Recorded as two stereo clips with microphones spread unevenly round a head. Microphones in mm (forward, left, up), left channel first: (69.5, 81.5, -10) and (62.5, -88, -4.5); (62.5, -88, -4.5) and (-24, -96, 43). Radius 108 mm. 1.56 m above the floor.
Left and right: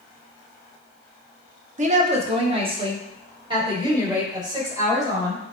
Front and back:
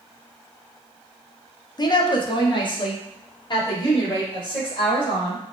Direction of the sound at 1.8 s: 50° right.